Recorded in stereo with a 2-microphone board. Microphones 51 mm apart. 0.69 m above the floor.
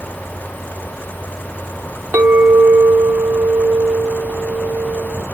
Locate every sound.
2.1 s a clink: 45° right (ahead or behind), 1.1 m